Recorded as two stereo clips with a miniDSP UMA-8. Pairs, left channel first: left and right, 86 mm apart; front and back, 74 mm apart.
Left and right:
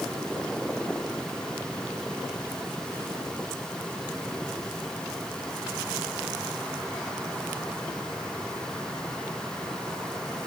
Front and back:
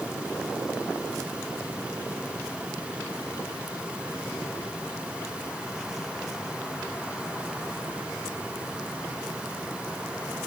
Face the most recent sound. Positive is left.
No sound to turn to.